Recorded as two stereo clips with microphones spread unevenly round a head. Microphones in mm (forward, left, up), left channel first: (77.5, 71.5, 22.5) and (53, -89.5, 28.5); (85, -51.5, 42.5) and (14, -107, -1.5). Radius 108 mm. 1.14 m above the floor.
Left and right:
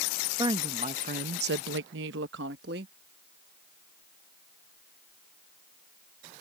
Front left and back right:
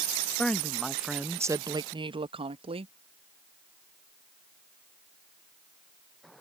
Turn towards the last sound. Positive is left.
turn(degrees=-145)